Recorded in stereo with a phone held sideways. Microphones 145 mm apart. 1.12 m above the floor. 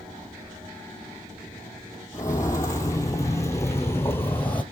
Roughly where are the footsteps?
Left.